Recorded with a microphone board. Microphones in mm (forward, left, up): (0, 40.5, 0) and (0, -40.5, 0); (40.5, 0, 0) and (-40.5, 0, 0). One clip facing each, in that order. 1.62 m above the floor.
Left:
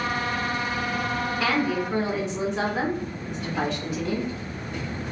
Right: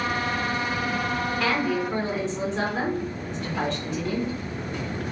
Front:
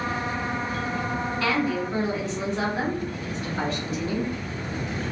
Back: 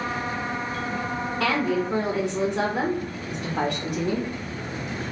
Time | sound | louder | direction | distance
1.4 | a woman speaking | left 1 dB, back 2 dB | straight behind | 0.7 m